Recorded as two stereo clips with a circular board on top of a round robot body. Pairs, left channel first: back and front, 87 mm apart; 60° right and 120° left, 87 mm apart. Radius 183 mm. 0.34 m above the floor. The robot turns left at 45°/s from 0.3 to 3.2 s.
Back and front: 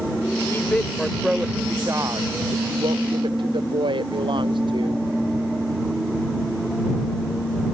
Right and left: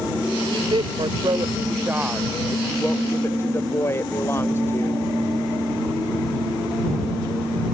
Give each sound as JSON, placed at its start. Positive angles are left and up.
{"t": 0.5, "sound": "a woman speaking", "azimuth_deg": 120}